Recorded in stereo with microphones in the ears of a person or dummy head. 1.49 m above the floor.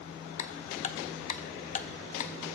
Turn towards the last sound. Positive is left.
turn(degrees=40)  # may be behind; listen again after turning